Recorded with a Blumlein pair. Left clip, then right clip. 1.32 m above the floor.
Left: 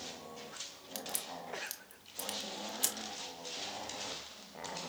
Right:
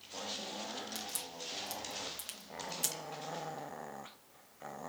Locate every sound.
0.9 s a crack: 5° left, 0.9 m